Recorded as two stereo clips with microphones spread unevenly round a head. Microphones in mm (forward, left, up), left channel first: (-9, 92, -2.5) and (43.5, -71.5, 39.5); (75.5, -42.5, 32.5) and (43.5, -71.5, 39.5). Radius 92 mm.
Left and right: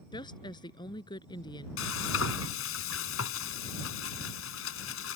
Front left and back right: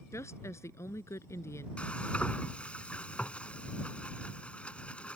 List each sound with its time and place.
0.1 s a woman speaking: 40° left
1.8 s frying: 130° left